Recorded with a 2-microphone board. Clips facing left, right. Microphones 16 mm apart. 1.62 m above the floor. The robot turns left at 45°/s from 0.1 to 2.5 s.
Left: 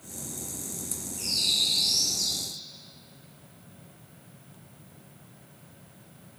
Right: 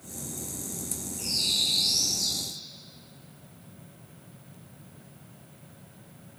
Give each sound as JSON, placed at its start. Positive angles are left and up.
{"t": 1.2, "sound": "a bird", "azimuth_deg": 60, "distance_m": 2.5}